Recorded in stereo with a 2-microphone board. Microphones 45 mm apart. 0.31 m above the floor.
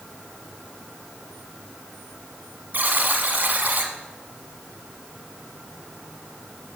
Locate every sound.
2.7 s a buzzer: 50° right (ahead or behind), 1.3 m